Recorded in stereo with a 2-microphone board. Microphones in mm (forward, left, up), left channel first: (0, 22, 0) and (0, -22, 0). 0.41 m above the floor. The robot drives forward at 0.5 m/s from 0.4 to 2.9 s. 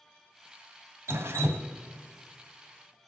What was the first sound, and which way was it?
Dripping, 85° right.